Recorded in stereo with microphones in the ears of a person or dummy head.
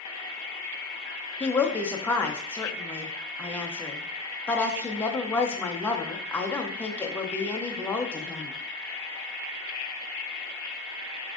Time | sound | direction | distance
1.4 | a woman speaking | 10° left (ahead or behind) | 0.6 m